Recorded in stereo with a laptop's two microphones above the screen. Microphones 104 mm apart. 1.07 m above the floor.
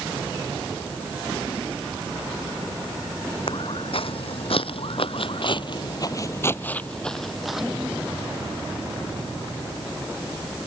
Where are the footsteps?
60° left (ahead or behind); by 9.3 s 20° right (ahead or behind).